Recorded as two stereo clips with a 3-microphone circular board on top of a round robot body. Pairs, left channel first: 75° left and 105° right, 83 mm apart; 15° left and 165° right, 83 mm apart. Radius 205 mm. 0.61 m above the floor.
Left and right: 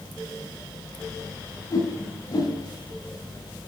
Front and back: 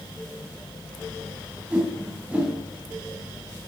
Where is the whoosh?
120° left, 4.5 m.